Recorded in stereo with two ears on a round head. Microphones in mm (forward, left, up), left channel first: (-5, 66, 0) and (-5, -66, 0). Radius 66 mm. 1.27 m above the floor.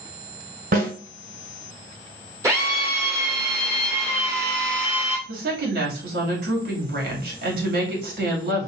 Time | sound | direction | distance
0.7 | a snare drum | 60° right (ahead or behind) | 3 m
2.4 | a drill | 20° right (ahead or behind) | 2 m
5.3 | a woman speaking | 75° right (ahead or behind) | 2.5 m